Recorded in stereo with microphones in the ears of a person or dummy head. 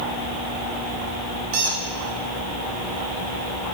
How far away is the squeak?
About 0.7 m.